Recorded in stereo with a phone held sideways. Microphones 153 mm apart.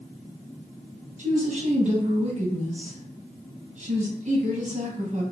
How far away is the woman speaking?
About 0.7 m.